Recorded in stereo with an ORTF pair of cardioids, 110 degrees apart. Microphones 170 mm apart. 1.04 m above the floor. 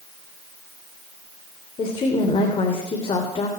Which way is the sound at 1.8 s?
30° left.